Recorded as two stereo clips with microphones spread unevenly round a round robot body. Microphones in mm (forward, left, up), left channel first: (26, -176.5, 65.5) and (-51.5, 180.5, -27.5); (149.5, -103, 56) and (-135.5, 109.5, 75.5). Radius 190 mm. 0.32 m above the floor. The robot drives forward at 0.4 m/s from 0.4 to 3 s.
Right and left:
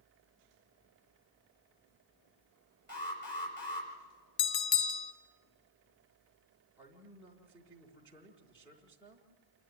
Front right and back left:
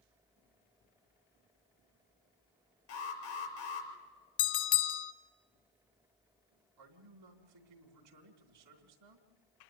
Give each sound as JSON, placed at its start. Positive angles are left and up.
{"t": 2.9, "sound": "an alarm", "azimuth_deg": -10, "distance_m": 5.0}
{"t": 4.4, "sound": "a bell", "azimuth_deg": -45, "distance_m": 0.9}
{"t": 6.8, "sound": "a man speaking", "azimuth_deg": -175, "distance_m": 3.0}